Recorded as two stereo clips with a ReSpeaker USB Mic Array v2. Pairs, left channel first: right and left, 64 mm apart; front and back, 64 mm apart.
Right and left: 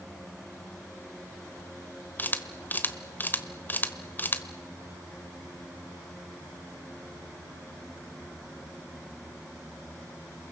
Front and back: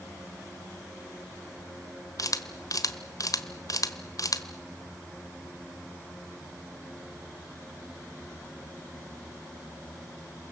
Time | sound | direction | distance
2.2 | a camera shutter | 30° right | 1.2 m